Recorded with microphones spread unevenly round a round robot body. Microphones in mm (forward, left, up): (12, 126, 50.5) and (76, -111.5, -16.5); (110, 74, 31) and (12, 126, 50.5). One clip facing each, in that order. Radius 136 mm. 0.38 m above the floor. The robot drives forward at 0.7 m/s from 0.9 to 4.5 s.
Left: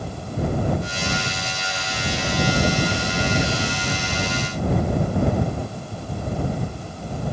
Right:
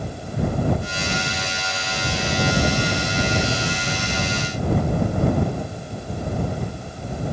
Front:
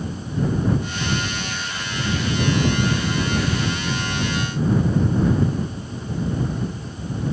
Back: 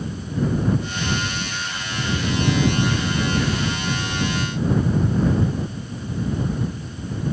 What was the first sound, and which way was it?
Only background noise.